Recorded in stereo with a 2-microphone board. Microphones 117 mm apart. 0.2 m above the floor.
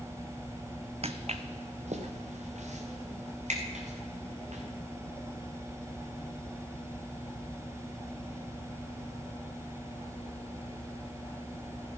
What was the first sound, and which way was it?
Footsteps, 60° right (ahead or behind).